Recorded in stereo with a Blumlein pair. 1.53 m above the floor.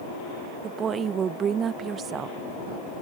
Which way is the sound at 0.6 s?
25° right.